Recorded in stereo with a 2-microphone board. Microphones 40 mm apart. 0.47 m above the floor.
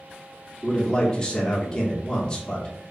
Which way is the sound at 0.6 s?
15° left (ahead or behind).